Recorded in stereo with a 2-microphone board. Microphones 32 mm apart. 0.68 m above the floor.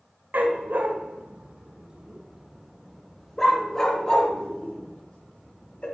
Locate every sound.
0.3 s a dog barking: 75° right (ahead or behind), 1.1 m; by 5.8 s 40° left (ahead or behind), 2 m